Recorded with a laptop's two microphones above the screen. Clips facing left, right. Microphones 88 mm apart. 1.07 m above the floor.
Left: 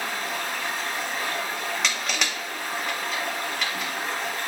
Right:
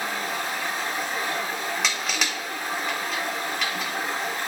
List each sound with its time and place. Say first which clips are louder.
0.0 s running water: right 1 dB; 20° right (ahead or behind), 1.0 m
1.8 s crushing: even; centre (ahead or behind), 1.0 m